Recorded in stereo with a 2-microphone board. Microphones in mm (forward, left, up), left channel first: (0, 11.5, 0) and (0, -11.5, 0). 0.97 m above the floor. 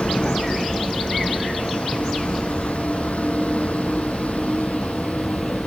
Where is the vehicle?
70° left (ahead or behind); by 5.7 s 80° left.